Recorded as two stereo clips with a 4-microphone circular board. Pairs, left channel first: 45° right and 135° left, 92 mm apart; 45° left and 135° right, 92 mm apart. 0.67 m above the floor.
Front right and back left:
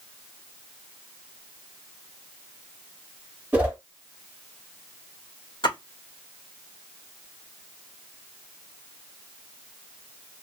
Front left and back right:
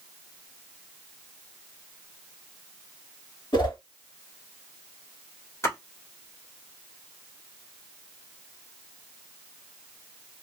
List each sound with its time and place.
3.5 s a whoosh: 65° left, 1.6 m
5.6 s a splash: 15° right, 1.8 m